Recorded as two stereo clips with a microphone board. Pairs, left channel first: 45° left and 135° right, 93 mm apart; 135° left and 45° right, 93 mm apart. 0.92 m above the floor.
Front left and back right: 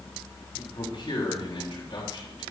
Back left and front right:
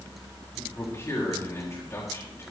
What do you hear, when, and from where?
0.6 s a man speaking: 75° left, 6.5 m